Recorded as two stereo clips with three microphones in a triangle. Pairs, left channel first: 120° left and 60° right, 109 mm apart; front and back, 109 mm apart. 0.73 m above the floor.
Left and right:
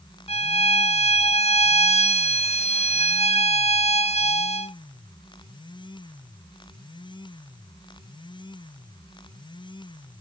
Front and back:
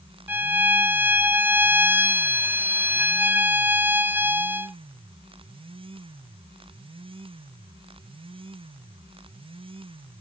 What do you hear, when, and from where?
0.3 s a violin: 105° left, 0.7 m